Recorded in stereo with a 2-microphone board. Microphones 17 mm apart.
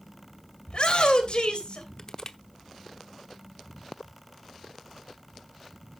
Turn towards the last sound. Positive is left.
turn(degrees=35)  # may be behind; listen again after turning